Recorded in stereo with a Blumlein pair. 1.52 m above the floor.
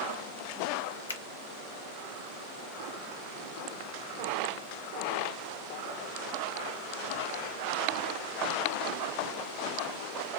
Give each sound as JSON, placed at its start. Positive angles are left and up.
{"t": 1.1, "sound": "a finger snap", "azimuth_deg": 70, "distance_m": 0.5}